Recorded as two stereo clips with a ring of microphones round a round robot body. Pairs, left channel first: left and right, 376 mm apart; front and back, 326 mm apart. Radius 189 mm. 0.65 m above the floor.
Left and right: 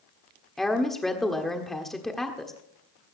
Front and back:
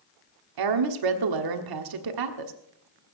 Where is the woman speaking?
Straight behind, 1.4 m.